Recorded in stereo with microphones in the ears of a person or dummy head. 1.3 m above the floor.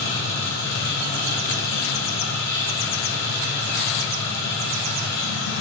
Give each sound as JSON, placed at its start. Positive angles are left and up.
{"t": 0.0, "sound": "a machine running", "side_deg": 60, "distance_m": 2.5}